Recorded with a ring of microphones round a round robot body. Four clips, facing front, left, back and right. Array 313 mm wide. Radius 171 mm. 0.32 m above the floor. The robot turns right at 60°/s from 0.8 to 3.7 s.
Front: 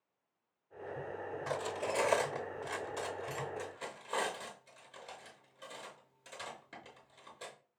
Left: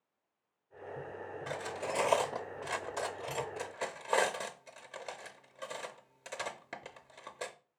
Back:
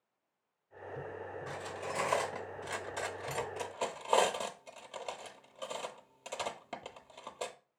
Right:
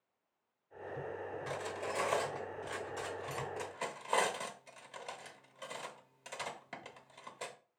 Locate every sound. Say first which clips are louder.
1.5 s cutlery clinking: left 4 dB, front 6 dB; 15° left, 0.7 m; by 7.5 s 150° left, 0.7 m